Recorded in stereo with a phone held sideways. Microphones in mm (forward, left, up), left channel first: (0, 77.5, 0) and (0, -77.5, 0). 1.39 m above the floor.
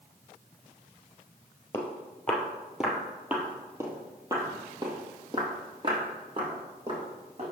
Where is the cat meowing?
No cat meowing in this recording.